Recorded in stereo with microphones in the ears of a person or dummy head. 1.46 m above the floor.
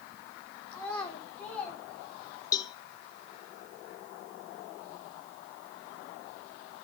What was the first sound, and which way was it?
A child speaking, 10° left (ahead or behind).